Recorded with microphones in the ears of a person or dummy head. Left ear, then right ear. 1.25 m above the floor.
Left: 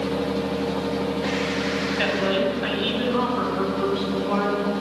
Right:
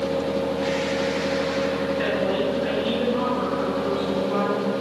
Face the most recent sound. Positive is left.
turn(degrees=30)  # may be behind; listen again after turning